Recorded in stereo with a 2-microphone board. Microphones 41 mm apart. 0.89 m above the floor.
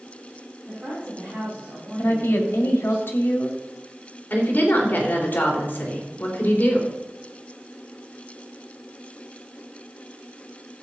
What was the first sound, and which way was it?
A woman speaking, 30° right (ahead or behind).